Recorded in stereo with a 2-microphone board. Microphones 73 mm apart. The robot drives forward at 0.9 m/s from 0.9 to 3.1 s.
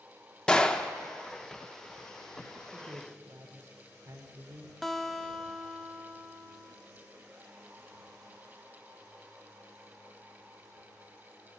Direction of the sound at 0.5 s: 10° left (ahead or behind).